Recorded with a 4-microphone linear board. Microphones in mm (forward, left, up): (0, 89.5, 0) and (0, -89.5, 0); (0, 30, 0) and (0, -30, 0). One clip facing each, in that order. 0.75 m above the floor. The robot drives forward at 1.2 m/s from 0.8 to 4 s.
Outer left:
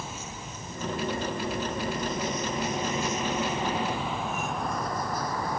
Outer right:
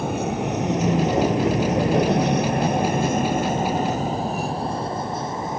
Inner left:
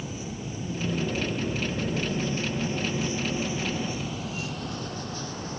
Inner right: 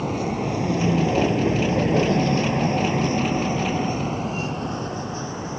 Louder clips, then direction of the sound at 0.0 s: Outer right 16 dB, inner right 11 dB; 65° right (ahead or behind).